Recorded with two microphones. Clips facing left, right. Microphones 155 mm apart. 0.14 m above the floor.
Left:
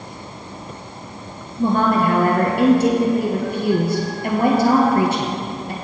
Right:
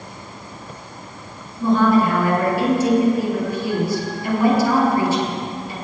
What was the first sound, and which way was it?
A woman speaking, 60° left (ahead or behind).